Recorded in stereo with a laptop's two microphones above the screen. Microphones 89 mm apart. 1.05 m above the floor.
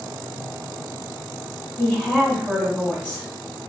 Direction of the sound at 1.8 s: 15° left (ahead or behind).